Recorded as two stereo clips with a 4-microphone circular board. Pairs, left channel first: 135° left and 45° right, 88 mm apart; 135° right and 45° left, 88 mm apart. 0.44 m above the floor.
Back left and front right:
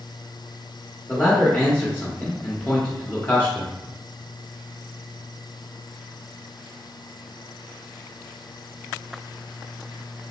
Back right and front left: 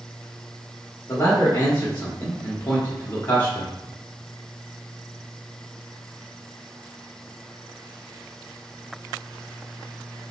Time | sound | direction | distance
1.1 | a man speaking | 175° right | 1.0 m